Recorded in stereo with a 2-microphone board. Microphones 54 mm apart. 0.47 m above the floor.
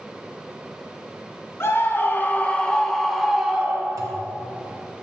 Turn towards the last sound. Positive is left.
turn(degrees=-80)